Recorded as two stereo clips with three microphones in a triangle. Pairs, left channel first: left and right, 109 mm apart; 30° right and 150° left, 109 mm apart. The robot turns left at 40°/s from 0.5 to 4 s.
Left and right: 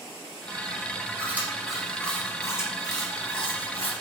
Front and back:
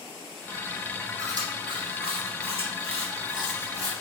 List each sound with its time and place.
1.2 s chewing: 155° right, 2.5 m; by 3.9 s 95° left, 2.5 m